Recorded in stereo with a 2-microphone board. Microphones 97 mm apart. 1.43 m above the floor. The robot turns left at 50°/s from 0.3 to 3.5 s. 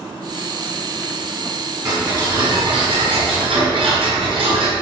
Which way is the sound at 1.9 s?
35° right.